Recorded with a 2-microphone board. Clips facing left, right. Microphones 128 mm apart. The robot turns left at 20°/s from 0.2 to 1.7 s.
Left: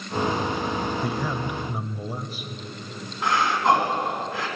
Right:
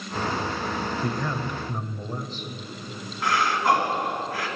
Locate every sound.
1.0 s a man speaking: 5° left (ahead or behind), 0.9 m; by 2.5 s 10° left (ahead or behind), 0.9 m
3.2 s breathing: 20° left (ahead or behind), 2.5 m